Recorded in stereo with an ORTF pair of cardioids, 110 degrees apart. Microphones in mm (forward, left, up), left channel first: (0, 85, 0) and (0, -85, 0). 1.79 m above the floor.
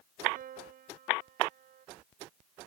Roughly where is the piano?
Ahead right.